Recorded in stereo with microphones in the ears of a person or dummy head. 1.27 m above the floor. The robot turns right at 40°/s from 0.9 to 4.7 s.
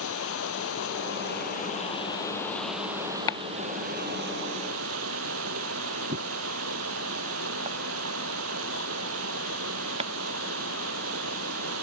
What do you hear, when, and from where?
0.0 s running water: 110° left; by 11.8 s 95° right
3.3 s chopping: 20° left (ahead or behind); by 10.1 s 40° right (ahead or behind)